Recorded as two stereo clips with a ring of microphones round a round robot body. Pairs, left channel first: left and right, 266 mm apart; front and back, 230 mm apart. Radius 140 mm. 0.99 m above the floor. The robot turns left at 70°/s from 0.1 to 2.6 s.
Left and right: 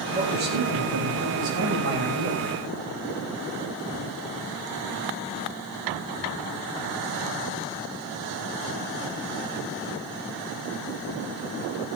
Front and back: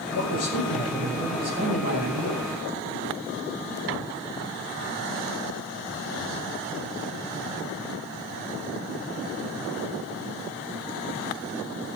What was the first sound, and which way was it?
A man speaking, 20° right.